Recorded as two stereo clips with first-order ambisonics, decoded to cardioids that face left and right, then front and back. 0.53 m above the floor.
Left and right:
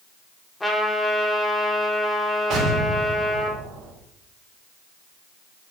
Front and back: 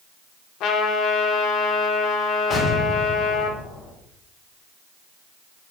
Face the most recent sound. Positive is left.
turn(degrees=-60)